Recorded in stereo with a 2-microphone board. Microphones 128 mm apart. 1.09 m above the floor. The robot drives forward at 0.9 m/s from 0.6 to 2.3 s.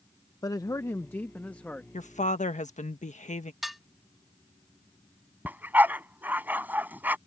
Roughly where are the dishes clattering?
Centre.